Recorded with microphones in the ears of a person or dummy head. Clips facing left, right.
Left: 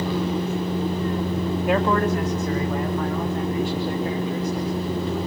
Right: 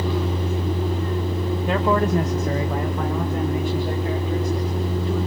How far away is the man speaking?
About 0.8 m.